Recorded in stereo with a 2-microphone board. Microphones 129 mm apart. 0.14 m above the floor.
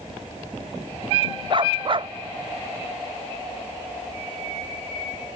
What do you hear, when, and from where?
1.5 s a dog barking: 40° right (ahead or behind)